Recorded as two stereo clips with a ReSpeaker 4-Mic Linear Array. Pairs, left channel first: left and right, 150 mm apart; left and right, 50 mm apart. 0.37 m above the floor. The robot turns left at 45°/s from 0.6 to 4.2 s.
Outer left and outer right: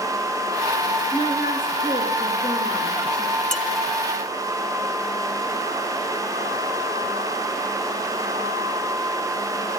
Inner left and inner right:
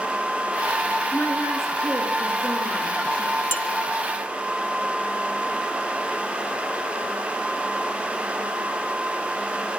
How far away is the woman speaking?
About 6.5 m.